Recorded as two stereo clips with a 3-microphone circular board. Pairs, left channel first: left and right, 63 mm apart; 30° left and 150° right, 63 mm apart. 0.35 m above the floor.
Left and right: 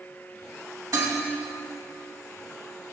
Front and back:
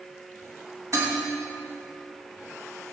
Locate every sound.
0.9 s dishes clattering: 115° right, 1.9 m